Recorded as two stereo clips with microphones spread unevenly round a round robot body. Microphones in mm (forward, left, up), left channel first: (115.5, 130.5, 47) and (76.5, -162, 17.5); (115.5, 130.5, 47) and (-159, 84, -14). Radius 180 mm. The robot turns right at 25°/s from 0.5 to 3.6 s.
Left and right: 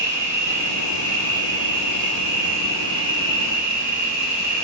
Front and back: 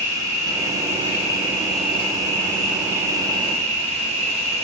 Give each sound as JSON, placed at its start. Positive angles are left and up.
{"t": 0.0, "sound": "an insect", "azimuth_deg": 50, "distance_m": 4.0}